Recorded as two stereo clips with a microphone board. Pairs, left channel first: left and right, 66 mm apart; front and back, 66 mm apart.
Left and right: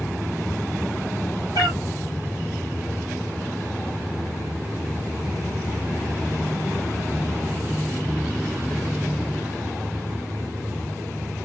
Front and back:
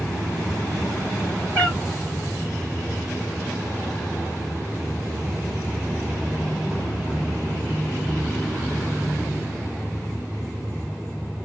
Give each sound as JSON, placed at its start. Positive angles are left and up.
{"t": 1.6, "sound": "a cat meowing", "azimuth_deg": 75, "distance_m": 3.0}